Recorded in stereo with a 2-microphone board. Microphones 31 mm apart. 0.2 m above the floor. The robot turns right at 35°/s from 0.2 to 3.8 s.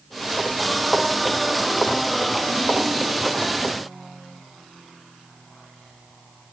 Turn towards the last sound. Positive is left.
No sound to turn to.